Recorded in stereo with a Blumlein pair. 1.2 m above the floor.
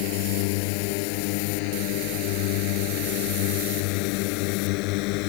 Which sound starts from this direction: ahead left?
A drone, at 0.0 s.